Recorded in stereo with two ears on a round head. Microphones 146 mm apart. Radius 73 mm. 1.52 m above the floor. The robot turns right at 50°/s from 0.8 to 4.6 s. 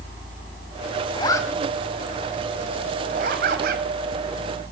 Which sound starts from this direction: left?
A zipper, at 1.1 s.